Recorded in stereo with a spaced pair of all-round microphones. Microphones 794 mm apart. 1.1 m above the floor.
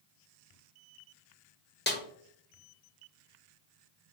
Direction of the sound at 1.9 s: 15° left (ahead or behind).